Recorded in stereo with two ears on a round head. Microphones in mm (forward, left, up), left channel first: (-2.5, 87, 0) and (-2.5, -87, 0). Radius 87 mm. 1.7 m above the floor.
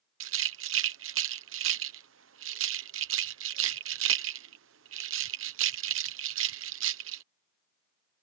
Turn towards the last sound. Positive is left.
turn(degrees=-70)  # may be behind; listen again after turning